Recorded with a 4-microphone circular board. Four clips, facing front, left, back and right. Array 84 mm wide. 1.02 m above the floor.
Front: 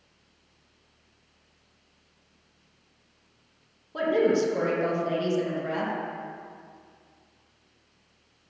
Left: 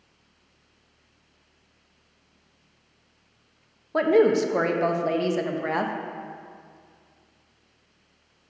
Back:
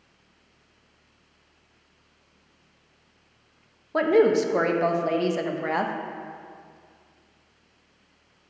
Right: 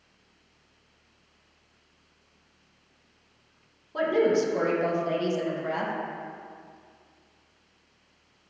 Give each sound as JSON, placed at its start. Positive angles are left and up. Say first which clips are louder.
{"t": 3.9, "sound": "a woman speaking", "louder": "left 4 dB, back 4 dB", "azimuth_deg": 135, "distance_m": 0.8}